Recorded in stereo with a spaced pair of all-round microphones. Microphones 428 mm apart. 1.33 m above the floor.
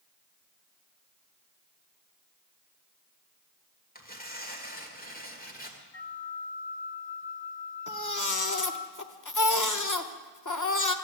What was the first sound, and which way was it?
Tearing paper, 20° left (ahead or behind).